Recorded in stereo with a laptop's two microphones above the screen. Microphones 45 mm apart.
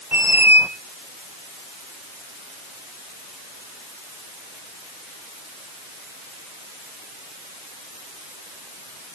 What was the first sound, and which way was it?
A squeak, 45° right (ahead or behind).